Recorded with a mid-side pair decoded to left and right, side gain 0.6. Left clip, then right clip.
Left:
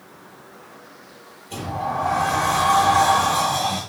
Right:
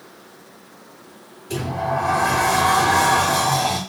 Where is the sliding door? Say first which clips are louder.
Right 2 dB; 65° right, 8 m.